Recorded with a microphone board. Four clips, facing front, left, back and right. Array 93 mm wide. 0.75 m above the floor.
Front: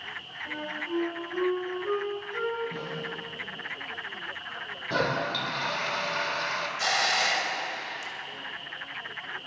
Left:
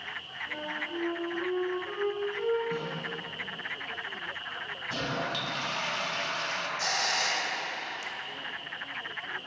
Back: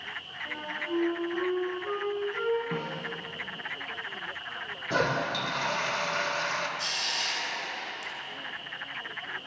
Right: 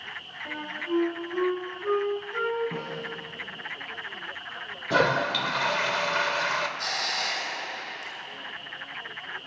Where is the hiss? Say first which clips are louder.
Left 1 dB, front 8 dB; 10° left, 3 m.